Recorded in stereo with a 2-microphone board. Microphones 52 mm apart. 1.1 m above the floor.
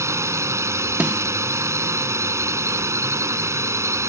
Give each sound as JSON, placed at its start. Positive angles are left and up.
{"t": 0.0, "sound": "a drone", "side_deg": -65}
{"t": 1.0, "sound": "a snare drum", "side_deg": -25}